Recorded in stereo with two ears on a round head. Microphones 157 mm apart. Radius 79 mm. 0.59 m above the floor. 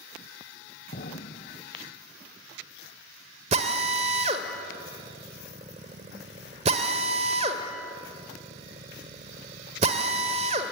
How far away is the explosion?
About 0.8 m.